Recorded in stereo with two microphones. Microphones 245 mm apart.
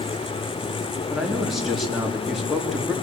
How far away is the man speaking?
About 4 m.